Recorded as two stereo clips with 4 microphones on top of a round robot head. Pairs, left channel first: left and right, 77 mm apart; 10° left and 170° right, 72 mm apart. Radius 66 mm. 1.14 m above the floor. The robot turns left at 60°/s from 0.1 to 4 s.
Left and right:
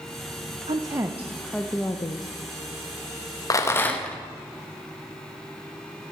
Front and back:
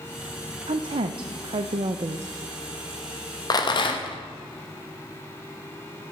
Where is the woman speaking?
135° right, 0.6 m; by 2.3 s 130° left, 0.6 m.